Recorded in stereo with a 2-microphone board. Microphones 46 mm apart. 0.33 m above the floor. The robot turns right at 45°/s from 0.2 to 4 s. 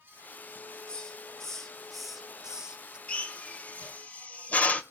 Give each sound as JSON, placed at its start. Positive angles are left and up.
{"t": 0.9, "sound": "a hiss", "side_deg": 20, "distance_m": 1.1}
{"t": 3.1, "sound": "a drill", "side_deg": 25, "distance_m": 1.6}